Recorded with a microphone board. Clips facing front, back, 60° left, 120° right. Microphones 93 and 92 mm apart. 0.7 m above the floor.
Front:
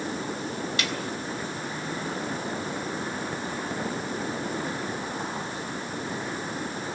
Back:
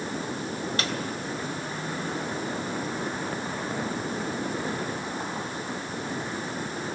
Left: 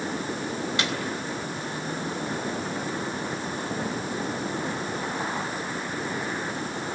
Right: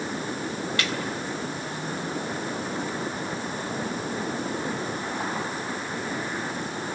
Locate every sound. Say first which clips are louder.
0.8 s a snare drum: even, even; 130° left, 3 m